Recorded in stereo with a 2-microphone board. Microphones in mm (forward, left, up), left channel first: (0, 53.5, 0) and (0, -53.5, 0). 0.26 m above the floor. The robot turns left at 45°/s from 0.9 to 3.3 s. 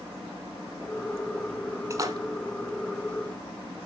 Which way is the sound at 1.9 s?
30° right (ahead or behind).